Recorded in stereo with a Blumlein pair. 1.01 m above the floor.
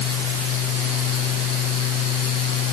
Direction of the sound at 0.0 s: 35° left.